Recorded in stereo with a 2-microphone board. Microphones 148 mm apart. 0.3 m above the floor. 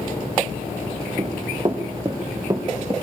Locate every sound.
1.2 s running footsteps: 30° right (ahead or behind), 2 m; by 2.9 s 20° right (ahead or behind), 3.5 m